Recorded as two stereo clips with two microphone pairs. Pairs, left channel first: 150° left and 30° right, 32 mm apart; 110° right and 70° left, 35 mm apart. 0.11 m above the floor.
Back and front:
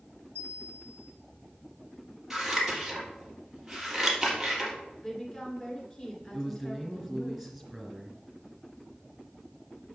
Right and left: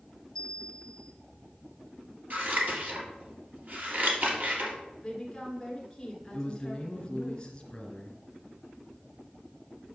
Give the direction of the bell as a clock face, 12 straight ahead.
6 o'clock.